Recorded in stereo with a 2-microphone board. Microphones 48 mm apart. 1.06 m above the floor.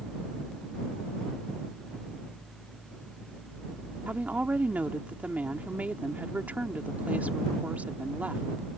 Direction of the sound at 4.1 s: 35° right (ahead or behind).